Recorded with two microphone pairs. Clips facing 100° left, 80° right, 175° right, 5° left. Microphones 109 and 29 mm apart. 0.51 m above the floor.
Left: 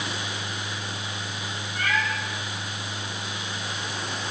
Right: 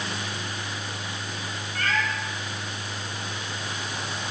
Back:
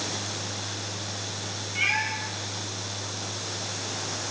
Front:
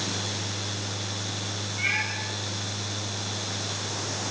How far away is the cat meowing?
About 7 m.